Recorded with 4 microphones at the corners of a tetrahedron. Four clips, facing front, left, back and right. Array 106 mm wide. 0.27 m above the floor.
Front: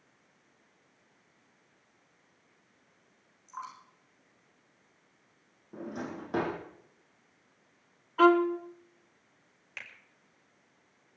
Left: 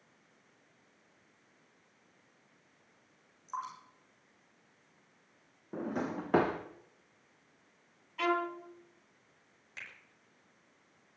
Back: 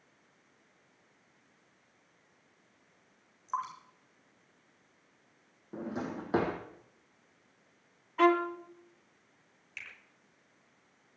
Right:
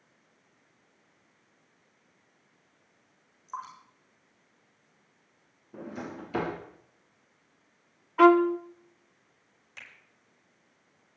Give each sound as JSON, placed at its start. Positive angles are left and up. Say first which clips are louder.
{"t": 3.5, "sound": "dripping", "louder": "even, back 7 dB", "azimuth_deg": 180, "distance_m": 7.5}
{"t": 5.7, "sound": "a drawer", "louder": "left 4 dB, back 1 dB", "azimuth_deg": 105, "distance_m": 4.0}
{"t": 8.2, "sound": "a violin", "louder": "right 14 dB, front 4 dB", "azimuth_deg": -70, "distance_m": 1.2}
{"t": 9.8, "sound": "a finger snap", "louder": "left 1 dB, front 2 dB", "azimuth_deg": 10, "distance_m": 6.0}